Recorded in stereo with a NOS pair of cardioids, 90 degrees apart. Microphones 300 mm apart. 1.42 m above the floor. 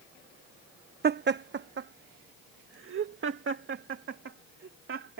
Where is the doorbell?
No doorbell in this recording.